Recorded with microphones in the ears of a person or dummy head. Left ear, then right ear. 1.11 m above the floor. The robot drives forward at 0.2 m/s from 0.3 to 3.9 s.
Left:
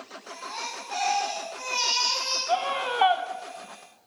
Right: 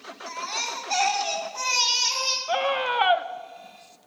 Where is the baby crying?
75° right (ahead or behind), 2.5 m; by 2.4 s 85° right, 2.5 m.